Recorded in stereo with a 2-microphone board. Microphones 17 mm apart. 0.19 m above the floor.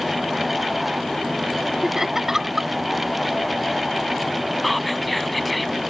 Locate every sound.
1.8 s laughter: 25° right (ahead or behind)
4.6 s whispering: 5° left (ahead or behind)